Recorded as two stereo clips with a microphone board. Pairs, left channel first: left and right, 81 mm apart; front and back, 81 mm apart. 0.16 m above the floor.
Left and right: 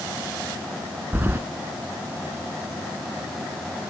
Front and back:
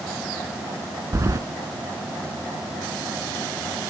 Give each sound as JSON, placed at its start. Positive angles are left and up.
{"t": 1.1, "sound": "keys jangling", "azimuth_deg": -145, "distance_m": 1.0}